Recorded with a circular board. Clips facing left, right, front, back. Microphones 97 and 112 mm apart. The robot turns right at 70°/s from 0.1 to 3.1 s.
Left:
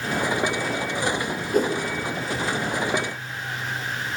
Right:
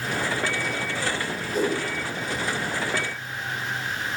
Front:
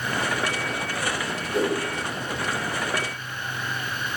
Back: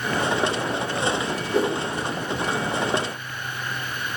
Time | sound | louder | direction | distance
1.5 | a whoosh | left 3 dB, back 1 dB | 115° left | 0.6 m